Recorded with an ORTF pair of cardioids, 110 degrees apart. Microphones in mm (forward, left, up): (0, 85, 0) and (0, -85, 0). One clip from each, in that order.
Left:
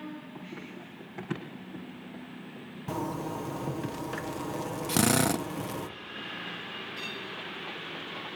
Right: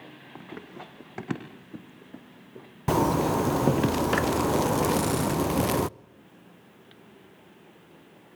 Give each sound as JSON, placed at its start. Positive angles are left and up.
{"t": 0.3, "sound": "running footsteps", "azimuth_deg": -45, "distance_m": 5.0}
{"t": 2.9, "sound": "a zipper", "azimuth_deg": -55, "distance_m": 0.5}
{"t": 4.9, "sound": "a drill", "azimuth_deg": 40, "distance_m": 0.8}